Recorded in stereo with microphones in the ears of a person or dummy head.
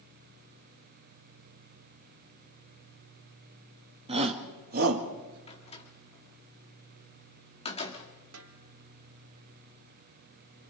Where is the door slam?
30° left (ahead or behind), 1.8 m.